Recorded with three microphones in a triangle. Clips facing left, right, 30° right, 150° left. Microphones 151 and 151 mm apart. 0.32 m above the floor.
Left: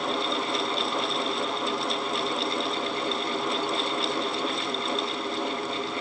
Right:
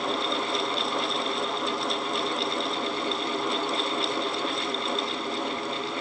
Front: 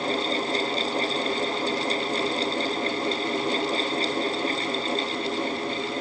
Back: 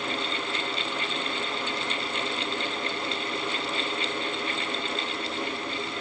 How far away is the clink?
No clink in this recording.